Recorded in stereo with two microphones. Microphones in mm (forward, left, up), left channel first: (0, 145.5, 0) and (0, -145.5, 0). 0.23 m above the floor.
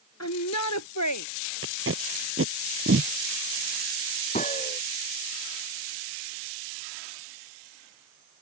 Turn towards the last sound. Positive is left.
turn(degrees=25)  # may be behind; listen again after turning